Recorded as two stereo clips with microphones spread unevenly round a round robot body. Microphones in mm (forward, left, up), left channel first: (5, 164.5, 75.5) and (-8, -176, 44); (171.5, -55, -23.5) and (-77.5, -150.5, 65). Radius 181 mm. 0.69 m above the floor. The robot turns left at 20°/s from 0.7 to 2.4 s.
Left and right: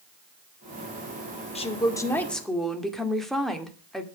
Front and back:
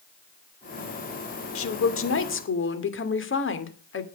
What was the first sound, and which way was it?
A woman speaking, 15° left.